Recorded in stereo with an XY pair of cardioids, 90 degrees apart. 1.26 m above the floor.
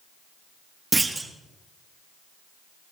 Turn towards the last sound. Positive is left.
turn(degrees=-25)